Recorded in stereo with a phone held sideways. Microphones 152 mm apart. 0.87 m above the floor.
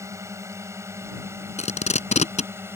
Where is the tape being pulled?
50° left (ahead or behind).